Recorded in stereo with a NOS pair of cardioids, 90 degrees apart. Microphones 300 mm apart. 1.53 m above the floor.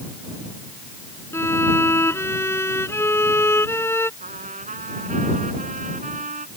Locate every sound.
1.3 s a violin: 10° left
4.2 s a trumpet: 25° right